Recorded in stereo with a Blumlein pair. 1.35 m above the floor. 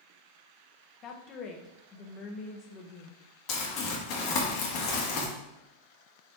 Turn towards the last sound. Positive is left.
turn(degrees=40)